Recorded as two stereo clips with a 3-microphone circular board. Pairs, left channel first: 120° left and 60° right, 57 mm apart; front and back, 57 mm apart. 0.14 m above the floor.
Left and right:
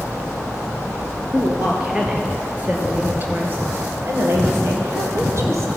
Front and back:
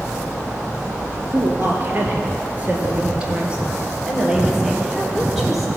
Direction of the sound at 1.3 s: 145° right.